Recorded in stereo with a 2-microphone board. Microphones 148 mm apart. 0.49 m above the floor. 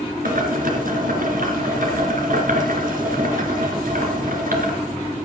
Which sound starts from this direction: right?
Boiling, at 0.2 s.